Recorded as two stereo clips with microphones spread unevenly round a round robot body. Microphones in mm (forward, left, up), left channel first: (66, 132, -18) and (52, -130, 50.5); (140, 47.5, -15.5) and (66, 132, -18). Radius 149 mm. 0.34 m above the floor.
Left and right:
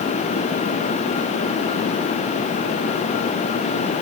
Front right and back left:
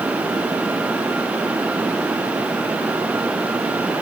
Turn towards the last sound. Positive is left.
No sound to turn to.